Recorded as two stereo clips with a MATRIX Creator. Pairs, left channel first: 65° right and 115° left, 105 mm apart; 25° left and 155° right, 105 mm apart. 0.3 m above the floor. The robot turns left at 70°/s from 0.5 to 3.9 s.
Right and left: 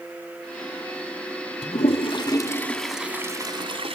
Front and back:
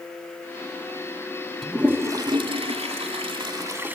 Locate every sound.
1.6 s a toilet flushing: 70° right, 1.1 m; by 4.0 s 130° left, 1.1 m